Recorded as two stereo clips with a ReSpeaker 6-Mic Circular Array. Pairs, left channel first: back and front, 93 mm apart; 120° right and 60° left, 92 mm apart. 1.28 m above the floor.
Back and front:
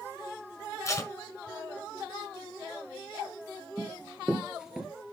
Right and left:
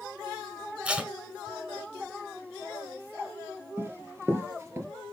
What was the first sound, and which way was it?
Tape being pulled, 130° left.